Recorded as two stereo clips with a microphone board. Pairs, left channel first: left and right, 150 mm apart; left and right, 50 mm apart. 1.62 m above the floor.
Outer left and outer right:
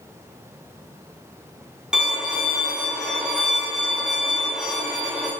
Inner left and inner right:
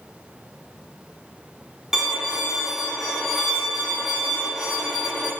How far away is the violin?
About 0.6 m.